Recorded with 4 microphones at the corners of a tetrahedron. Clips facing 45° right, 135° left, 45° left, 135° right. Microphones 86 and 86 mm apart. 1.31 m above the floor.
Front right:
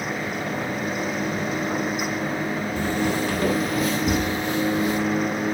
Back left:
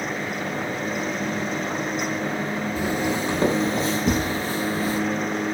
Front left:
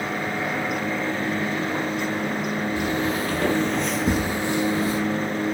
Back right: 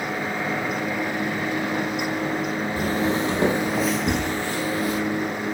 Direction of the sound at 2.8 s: 150° right.